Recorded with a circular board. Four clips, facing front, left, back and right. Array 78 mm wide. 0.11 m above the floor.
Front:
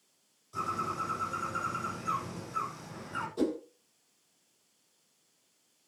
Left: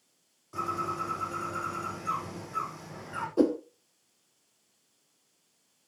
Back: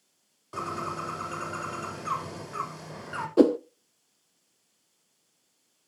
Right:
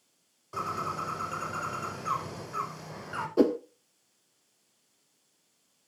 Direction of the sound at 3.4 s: 170° right.